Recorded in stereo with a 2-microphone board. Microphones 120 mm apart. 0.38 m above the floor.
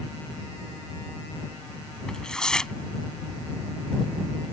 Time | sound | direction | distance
2.1 | tearing paper | 5° left (ahead or behind) | ?